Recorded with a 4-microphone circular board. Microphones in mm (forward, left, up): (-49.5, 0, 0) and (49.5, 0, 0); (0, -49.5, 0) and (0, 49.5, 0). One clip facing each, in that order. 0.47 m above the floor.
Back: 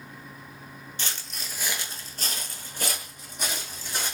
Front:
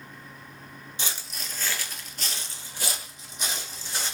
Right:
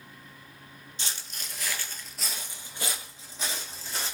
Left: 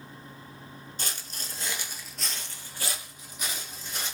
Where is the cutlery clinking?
No cutlery clinking in this recording.